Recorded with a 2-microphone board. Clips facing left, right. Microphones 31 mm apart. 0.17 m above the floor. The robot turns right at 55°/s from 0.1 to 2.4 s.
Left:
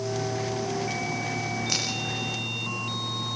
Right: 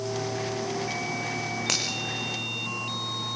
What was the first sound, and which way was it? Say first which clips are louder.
A finger snap: right 2 dB; 75° right (ahead or behind).